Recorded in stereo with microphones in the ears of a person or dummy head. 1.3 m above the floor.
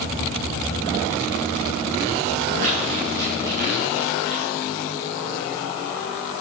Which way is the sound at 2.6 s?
30° right (ahead or behind).